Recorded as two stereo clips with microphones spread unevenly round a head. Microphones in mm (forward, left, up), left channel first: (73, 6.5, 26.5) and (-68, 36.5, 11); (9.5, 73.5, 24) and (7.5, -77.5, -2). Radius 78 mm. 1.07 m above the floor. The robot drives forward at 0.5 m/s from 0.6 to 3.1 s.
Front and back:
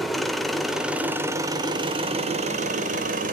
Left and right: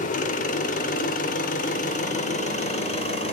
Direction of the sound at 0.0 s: 75° left.